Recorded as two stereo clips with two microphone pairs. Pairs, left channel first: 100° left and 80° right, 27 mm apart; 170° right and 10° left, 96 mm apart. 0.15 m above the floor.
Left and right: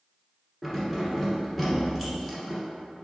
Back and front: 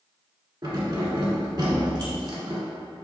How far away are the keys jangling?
About 1.4 m.